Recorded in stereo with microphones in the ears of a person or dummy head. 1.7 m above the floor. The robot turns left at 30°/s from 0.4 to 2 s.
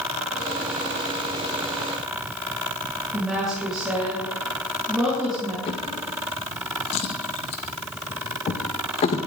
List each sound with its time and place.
3.1 s a woman speaking: 10° left (ahead or behind), 4.5 m
5.7 s a drawer: 40° left (ahead or behind), 1.1 m